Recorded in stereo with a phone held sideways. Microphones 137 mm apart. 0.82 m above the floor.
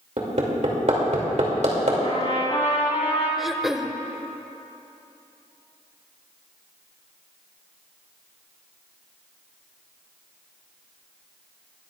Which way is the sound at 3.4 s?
Centre (ahead or behind).